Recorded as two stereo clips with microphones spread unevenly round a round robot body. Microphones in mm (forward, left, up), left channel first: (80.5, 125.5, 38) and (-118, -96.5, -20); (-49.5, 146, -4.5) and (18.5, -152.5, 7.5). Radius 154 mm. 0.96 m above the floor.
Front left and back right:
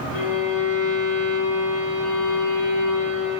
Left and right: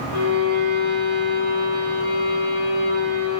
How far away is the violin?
About 1.0 m.